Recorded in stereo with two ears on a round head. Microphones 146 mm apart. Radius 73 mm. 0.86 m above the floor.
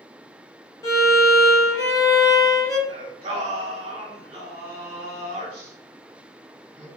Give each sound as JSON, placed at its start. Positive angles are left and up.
{"t": 0.8, "sound": "a violin", "side_deg": 20, "distance_m": 0.8}
{"t": 2.9, "sound": "singing", "side_deg": -35, "distance_m": 1.3}